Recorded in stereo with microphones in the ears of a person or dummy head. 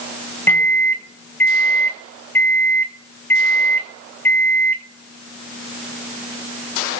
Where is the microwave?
10° left (ahead or behind), 1.2 m.